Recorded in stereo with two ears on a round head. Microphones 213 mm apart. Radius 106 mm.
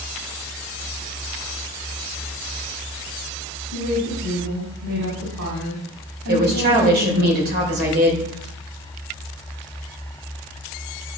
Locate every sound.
3.7 s a woman speaking: 85° right, 5.5 m
6.3 s a woman speaking: 40° right (ahead or behind), 3 m